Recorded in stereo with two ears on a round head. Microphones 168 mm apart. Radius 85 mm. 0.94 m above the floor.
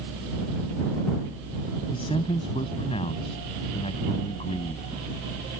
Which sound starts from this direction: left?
A man speaking, at 1.9 s.